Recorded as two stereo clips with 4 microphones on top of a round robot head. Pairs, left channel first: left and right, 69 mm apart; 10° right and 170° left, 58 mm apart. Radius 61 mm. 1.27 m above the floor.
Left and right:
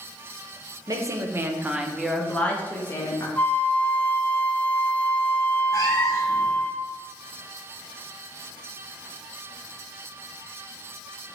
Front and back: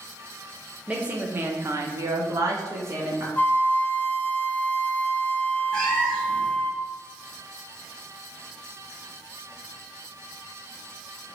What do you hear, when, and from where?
0.9 s a woman speaking: 115° right, 0.8 m; by 3.3 s 140° left, 1.1 m
3.4 s a flute: 25° left, 0.5 m
5.7 s a cat meowing: 70° left, 0.9 m